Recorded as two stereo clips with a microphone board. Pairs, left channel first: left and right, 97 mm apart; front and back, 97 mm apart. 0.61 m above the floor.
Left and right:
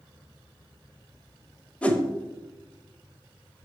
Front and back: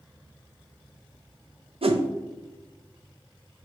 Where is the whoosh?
165° left, 0.7 m.